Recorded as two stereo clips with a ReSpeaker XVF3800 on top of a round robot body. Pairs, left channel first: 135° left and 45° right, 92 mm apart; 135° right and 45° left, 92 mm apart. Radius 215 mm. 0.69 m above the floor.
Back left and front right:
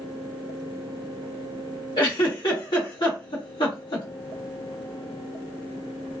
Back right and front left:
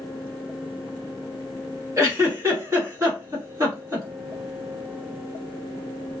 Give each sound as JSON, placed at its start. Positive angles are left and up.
{"t": 2.0, "sound": "a giggle", "azimuth_deg": 100, "distance_m": 1.5}